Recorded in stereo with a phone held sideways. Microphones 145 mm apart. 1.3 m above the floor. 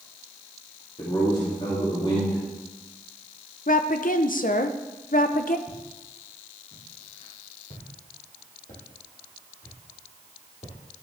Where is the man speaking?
35° left (ahead or behind), 2.5 m.